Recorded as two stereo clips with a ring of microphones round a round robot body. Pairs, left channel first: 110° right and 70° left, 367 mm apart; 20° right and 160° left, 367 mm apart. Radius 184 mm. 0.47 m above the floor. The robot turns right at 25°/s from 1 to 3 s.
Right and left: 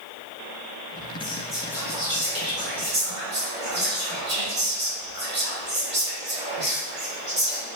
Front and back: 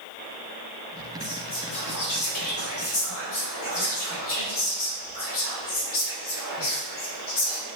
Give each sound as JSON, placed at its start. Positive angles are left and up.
{"t": 1.2, "sound": "whispering", "azimuth_deg": -30, "distance_m": 1.8}